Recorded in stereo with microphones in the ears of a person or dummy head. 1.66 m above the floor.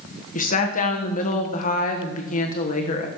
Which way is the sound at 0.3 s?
45° left (ahead or behind).